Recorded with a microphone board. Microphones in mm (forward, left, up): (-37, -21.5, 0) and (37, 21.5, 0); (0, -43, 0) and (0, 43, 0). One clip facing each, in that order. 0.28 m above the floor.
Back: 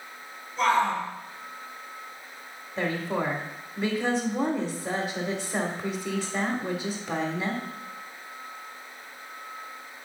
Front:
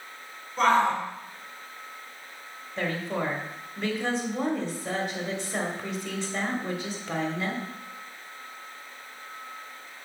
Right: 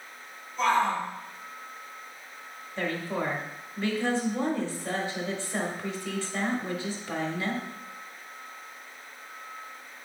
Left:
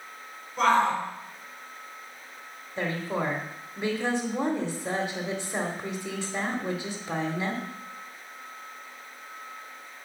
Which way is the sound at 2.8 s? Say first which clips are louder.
Back 2 dB, left 1 dB; 140° left.